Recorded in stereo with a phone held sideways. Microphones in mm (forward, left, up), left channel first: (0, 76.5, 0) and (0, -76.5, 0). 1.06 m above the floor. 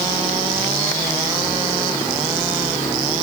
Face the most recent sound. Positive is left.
No sound to turn to.